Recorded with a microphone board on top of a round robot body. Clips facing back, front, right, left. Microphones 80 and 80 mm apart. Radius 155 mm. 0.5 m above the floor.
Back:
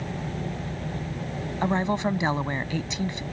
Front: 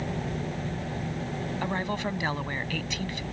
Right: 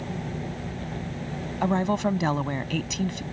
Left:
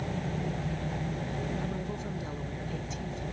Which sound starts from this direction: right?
A woman speaking, at 1.6 s.